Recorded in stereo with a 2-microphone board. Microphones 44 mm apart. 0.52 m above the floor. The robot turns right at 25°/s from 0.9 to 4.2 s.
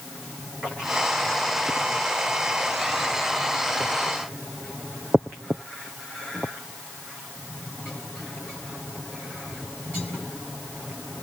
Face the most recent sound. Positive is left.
No sound to turn to.